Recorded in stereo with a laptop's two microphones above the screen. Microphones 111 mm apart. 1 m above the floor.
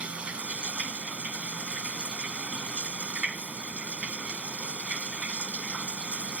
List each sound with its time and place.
0.0 s running water: 10° right (ahead or behind)